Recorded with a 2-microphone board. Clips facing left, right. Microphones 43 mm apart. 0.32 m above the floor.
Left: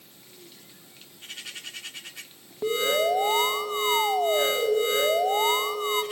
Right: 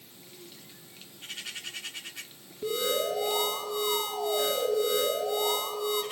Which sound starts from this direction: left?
An alarm, at 2.6 s.